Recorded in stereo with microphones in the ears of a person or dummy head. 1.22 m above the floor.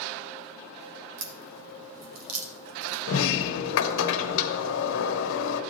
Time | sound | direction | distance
1.2 | a crack | 80° right | 1.1 m
3.1 | a sliding door | 75° left (ahead or behind) | 1.0 m